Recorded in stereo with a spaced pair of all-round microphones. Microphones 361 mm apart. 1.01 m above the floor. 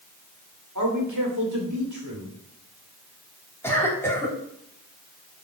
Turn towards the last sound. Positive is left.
turn(degrees=5)  # may be behind; listen again after turning